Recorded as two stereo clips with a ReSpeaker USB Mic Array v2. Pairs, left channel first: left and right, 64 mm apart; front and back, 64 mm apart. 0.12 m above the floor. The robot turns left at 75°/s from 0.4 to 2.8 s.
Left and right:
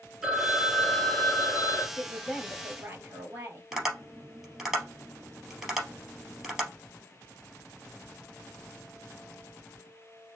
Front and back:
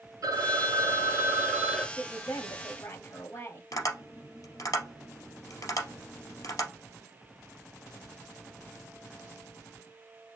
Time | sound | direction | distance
0.2 | a phone ringing | 175° right | 1.4 m
2.0 | a woman speaking | 30° left | 2.5 m
3.7 | tapping | 10° right | 2.5 m